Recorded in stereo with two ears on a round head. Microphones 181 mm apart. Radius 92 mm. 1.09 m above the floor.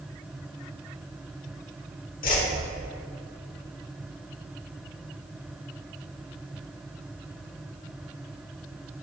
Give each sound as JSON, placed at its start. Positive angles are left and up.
{"t": 2.2, "sound": "a whoosh", "side_deg": 45, "distance_m": 1.2}